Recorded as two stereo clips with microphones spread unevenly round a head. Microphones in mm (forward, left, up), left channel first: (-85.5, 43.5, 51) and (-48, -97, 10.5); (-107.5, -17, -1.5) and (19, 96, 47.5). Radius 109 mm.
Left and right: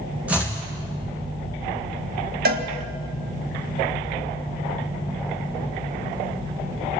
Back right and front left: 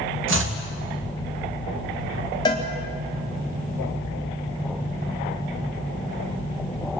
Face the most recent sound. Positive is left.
turn(degrees=-70)